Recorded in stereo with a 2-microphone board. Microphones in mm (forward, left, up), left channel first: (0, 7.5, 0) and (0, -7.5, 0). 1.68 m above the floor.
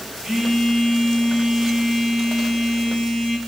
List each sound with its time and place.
0.2 s a phone buzzing: 40° right (ahead or behind), 5.5 m